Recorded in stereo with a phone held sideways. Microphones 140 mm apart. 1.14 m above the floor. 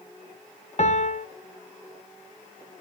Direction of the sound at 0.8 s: 55° left (ahead or behind).